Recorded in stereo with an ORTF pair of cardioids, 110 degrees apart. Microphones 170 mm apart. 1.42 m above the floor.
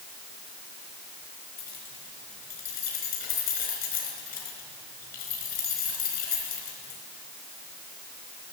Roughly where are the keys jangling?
Left.